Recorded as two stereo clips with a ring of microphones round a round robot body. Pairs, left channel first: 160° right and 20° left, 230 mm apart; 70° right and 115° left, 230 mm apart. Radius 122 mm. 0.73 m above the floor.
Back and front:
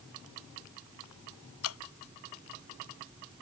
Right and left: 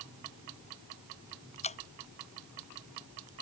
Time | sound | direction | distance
1.6 | dripping | 130° right | ?